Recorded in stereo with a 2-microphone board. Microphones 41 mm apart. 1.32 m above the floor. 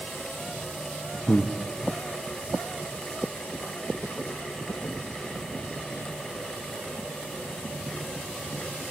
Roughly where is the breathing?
Left.